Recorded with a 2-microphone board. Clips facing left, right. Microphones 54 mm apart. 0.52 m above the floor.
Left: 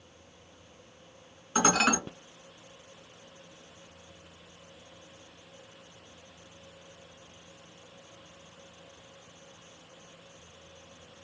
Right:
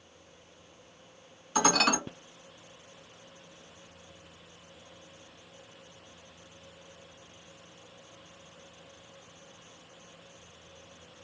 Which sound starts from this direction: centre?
Dishes clattering, at 1.6 s.